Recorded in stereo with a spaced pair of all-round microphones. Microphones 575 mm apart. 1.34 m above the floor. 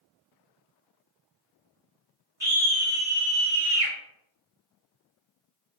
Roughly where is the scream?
Centre.